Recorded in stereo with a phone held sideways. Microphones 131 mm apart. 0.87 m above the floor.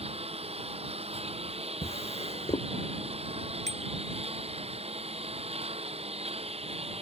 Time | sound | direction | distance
0.0 | a lawn mower | 50° right (ahead or behind) | ?
1.8 | a drawer | 50° left (ahead or behind) | ?
3.7 | a bicycle bell | 60° right (ahead or behind) | ?